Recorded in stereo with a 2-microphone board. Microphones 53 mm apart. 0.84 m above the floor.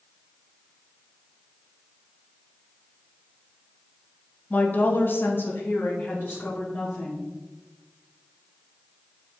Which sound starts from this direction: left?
A woman speaking, at 4.5 s.